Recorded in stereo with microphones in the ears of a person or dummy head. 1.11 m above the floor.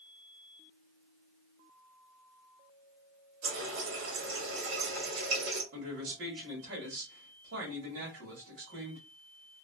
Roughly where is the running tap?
Right.